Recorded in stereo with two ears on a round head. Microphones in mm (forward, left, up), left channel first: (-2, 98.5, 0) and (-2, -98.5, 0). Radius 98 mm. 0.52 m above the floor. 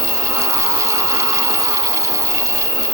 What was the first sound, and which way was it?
An insect, 65° right (ahead or behind).